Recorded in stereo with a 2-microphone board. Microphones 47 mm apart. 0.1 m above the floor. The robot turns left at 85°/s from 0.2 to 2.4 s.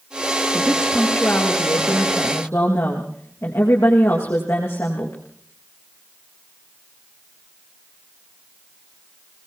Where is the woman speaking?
150° right, 6 m; by 5.2 s 50° left, 6 m.